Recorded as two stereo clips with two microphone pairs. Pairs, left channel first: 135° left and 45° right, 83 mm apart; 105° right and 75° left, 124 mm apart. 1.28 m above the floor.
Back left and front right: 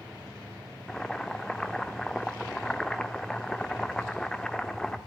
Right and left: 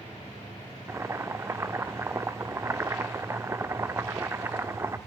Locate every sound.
0.9 s boiling: 65° left, 0.9 m